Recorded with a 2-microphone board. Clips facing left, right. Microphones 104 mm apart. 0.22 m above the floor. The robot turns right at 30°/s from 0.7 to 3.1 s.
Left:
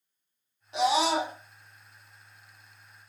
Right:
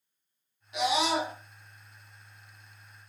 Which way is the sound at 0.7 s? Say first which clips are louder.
Left 3 dB; 30° left (ahead or behind).